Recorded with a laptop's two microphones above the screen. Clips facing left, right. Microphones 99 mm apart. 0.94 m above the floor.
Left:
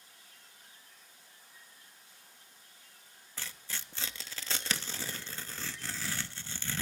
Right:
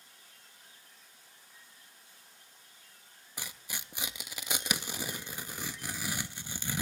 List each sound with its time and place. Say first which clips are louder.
3.4 s tearing paper: right 1 dB; 15° right (ahead or behind), 0.6 m